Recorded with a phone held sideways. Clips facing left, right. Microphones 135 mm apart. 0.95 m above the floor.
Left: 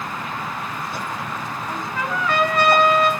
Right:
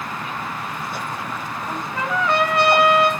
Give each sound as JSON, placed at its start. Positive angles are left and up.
{"t": 1.7, "sound": "a trumpet", "side_deg": -30, "distance_m": 4.5}